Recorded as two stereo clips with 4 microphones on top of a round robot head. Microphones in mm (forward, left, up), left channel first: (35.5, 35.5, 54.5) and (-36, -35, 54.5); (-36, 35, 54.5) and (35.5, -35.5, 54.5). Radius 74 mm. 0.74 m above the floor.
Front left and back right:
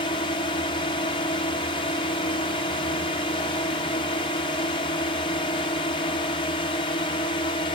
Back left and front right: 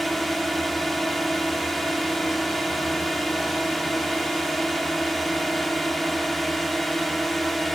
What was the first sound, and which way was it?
A drone, 45° left.